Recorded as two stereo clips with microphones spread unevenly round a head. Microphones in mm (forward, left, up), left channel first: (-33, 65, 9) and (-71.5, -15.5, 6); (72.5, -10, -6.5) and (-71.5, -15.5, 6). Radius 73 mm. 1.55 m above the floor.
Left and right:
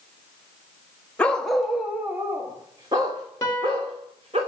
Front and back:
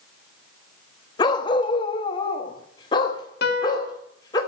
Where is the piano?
5° right, 1.7 m.